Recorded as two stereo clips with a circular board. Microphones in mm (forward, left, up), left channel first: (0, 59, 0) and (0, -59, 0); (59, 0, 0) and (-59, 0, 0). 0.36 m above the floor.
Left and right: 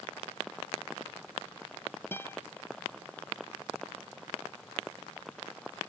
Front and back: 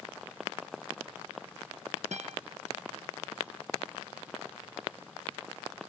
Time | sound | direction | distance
2.1 | a guitar | 160° left | ?